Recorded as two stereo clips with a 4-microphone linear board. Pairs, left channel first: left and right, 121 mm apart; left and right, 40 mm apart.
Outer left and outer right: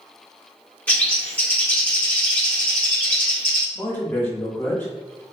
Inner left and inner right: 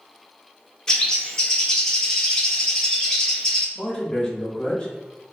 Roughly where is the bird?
Centre.